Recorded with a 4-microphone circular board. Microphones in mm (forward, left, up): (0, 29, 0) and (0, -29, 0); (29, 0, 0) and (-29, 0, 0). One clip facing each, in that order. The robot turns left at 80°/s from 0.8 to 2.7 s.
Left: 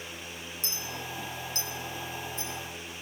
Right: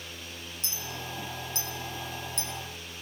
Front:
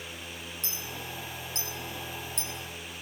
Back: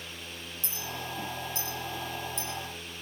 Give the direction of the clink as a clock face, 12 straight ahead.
11 o'clock.